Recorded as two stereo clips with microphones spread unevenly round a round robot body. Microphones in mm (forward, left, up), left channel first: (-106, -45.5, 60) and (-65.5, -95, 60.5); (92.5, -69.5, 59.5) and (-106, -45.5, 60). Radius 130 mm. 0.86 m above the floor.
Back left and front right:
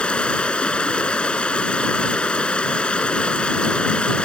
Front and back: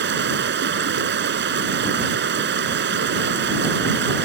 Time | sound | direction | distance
0.0 | running water | 155° right | ?